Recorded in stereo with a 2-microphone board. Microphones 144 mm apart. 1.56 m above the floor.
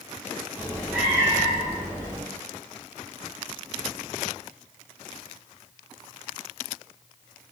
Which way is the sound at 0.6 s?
15° right (ahead or behind).